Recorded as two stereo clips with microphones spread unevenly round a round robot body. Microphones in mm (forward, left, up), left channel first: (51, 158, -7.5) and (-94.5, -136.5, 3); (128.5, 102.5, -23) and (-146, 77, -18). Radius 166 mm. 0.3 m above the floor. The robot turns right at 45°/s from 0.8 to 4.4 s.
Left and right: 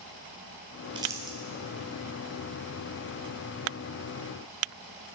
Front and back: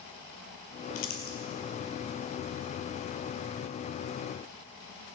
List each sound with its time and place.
0.9 s crumpling: 40° right, 2.5 m; by 1.4 s 25° right, 2.5 m